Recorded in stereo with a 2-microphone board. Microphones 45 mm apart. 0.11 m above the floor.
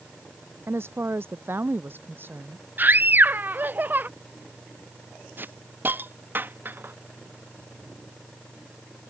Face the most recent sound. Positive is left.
turn(degrees=-50)  # may be behind; listen again after turning